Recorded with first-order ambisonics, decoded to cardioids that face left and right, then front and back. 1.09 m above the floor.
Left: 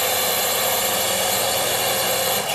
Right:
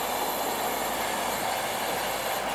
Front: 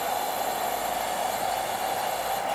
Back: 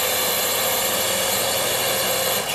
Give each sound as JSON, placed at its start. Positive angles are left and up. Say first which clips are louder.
{"t": 0.0, "sound": "a drone", "louder": "left 7 dB, back 5 dB", "azimuth_deg": 135}